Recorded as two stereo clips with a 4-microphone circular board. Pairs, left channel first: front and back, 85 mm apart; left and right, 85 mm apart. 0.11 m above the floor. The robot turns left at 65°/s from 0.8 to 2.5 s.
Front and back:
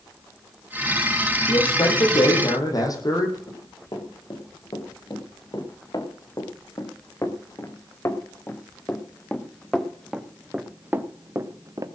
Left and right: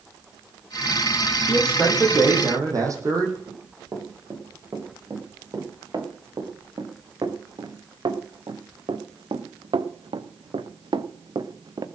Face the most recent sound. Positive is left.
turn(degrees=-130)